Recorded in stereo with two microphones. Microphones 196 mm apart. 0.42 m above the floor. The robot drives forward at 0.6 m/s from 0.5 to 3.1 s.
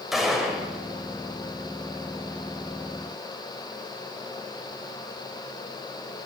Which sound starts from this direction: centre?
A gunshot, at 0.1 s.